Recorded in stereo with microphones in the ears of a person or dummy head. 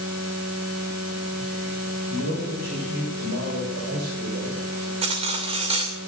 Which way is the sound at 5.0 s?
30° right (ahead or behind).